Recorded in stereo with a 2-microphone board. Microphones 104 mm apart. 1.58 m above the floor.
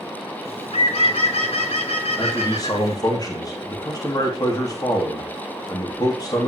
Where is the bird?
70° left (ahead or behind), 2 m.